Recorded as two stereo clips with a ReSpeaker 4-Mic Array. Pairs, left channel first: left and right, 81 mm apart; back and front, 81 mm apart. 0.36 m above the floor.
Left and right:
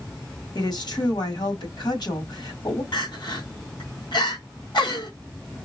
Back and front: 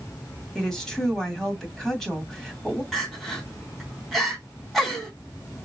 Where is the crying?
95° left, 2.5 m.